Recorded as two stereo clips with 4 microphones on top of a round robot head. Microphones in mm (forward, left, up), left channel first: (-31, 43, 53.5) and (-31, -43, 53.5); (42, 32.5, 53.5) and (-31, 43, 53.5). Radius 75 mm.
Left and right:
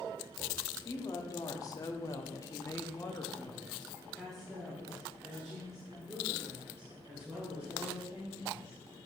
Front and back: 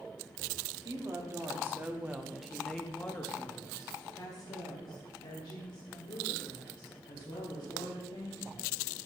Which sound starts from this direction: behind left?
A woman speaking, at 0.8 s.